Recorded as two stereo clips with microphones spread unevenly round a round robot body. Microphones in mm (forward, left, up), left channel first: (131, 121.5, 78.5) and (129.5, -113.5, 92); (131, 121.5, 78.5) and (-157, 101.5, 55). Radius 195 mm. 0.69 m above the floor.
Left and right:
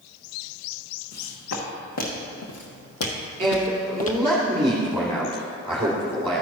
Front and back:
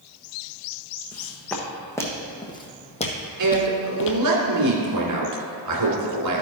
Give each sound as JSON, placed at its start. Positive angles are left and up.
{"t": 1.1, "sound": "footsteps", "azimuth_deg": 90, "distance_m": 2.5}
{"t": 3.4, "sound": "a man speaking", "azimuth_deg": -160, "distance_m": 2.0}